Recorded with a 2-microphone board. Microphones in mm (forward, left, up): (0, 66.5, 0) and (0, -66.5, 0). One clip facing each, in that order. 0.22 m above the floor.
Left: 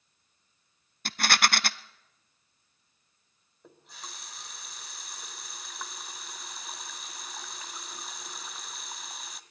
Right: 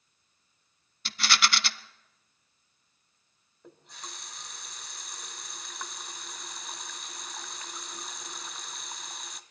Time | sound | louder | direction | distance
1.1 | a rattle | left 2 dB | 50° left (ahead or behind) | 0.6 m
3.6 | a running tap | right 1 dB | centre (ahead or behind) | 1.0 m